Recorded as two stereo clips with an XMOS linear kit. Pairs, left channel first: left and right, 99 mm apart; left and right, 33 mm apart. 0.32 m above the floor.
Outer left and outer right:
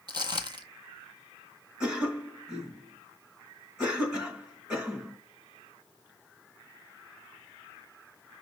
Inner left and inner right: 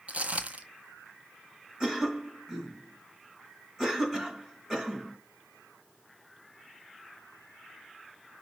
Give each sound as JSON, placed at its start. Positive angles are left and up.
{"t": 0.1, "sound": "footsteps", "side_deg": -45, "distance_m": 0.5}
{"t": 1.8, "sound": "a cough", "side_deg": -10, "distance_m": 3.0}